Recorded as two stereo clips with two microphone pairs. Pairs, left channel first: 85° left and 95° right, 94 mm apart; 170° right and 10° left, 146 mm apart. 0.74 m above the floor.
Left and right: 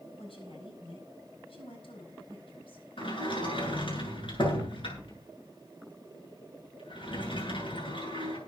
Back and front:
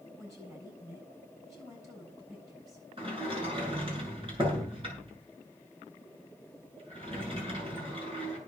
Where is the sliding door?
65° left, 8.5 m.